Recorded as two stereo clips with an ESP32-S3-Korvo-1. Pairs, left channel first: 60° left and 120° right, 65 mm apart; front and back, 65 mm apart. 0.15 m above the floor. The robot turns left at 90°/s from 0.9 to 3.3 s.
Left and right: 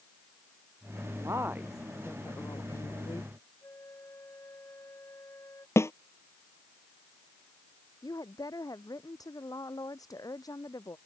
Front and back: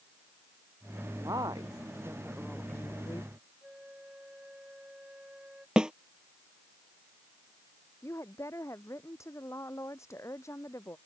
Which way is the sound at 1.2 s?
150° right.